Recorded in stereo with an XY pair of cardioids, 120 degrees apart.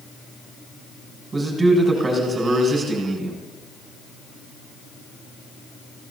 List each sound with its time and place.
1.3 s a man speaking: 25° right, 6.5 m